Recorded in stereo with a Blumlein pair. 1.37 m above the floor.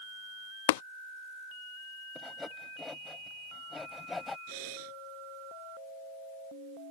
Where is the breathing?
45° right.